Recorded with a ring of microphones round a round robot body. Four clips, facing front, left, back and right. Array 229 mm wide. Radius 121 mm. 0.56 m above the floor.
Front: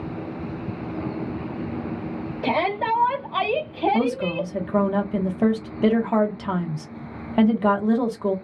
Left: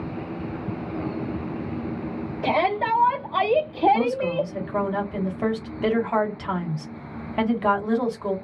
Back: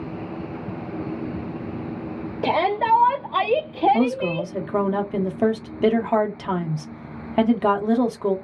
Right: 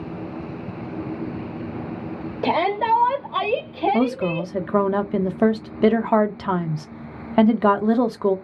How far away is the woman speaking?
About 0.8 m.